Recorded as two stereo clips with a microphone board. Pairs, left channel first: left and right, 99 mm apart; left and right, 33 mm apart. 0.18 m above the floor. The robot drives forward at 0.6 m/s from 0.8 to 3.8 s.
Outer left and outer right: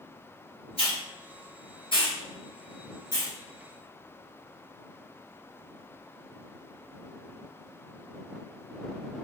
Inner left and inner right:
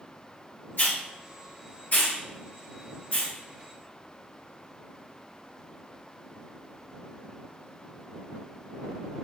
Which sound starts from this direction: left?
A hiss, at 0.8 s.